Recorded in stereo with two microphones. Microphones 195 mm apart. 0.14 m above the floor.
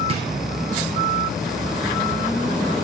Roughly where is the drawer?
Right.